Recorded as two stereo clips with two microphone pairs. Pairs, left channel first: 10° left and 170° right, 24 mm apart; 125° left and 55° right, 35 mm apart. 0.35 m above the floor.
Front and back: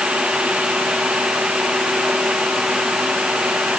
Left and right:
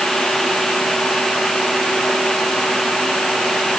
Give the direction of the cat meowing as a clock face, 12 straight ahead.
No cat meowing in this recording.